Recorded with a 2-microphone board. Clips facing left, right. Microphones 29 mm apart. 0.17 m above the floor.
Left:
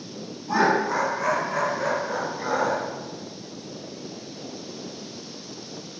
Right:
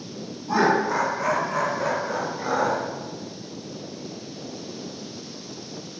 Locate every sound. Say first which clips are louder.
0.5 s laughter: right 1 dB; 5° right (ahead or behind), 1.0 m; by 2.8 s centre (ahead or behind), 1.9 m